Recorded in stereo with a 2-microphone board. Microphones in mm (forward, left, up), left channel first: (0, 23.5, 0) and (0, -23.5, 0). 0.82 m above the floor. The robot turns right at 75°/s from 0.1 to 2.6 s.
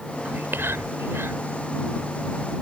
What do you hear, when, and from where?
0.2 s whispering: 35° right (ahead or behind); by 1.4 s 55° right (ahead or behind)